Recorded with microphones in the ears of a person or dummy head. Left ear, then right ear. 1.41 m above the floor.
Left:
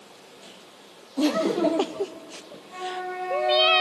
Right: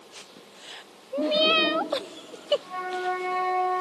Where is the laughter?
80° left, 0.9 m.